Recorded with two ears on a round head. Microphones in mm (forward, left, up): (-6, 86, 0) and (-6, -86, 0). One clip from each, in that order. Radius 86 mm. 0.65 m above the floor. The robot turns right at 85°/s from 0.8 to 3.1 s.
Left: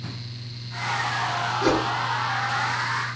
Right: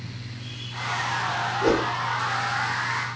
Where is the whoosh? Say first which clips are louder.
Right 1 dB; 55° left (ahead or behind), 1.0 m; by 1.9 s 65° left (ahead or behind), 1.0 m.